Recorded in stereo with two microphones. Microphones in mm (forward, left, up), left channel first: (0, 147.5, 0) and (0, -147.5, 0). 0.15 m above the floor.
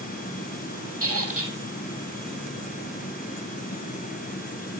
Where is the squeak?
50° right (ahead or behind), 4 m.